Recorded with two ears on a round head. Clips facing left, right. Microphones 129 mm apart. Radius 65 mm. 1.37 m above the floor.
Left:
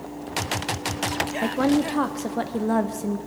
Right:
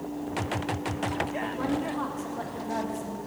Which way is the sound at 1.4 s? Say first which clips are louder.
Left 13 dB; 80° left.